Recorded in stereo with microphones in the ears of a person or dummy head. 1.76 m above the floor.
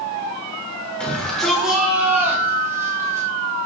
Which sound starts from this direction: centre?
A shout, at 1.0 s.